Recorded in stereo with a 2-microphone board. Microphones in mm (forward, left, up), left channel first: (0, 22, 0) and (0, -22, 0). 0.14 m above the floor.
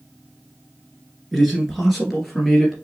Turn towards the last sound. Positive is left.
turn(degrees=0)  # may be behind; listen again after turning